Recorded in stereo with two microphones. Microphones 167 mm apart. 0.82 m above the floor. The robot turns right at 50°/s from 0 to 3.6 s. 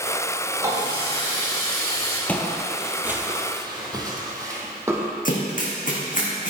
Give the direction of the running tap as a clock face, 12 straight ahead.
5 o'clock.